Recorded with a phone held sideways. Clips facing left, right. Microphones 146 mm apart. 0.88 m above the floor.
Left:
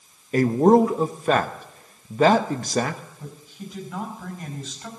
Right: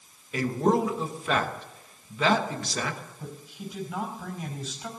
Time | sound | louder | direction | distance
0.3 | a man speaking | left 8 dB | 50° left (ahead or behind) | 1.0 m
3.2 | a woman speaking | left 1 dB | 10° right (ahead or behind) | 4.5 m